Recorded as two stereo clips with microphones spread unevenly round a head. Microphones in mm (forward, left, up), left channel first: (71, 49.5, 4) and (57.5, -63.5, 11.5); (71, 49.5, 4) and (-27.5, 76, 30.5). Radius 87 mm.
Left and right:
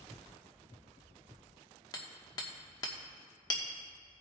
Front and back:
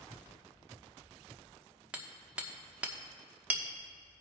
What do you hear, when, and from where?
1.9 s hammering: 120° left, 1.0 m